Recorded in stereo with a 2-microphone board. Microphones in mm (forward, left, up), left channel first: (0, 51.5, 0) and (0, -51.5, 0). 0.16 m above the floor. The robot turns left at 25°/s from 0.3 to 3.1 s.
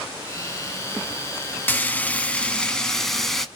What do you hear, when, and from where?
1.7 s frying: 20° left (ahead or behind), 0.6 m; by 3.5 s 5° left (ahead or behind), 0.6 m